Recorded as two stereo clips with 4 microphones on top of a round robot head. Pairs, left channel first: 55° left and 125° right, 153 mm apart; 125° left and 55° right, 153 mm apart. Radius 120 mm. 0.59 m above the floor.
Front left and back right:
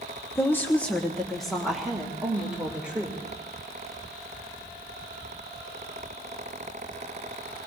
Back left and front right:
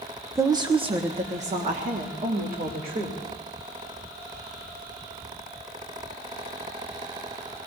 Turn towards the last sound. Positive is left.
turn(degrees=-40)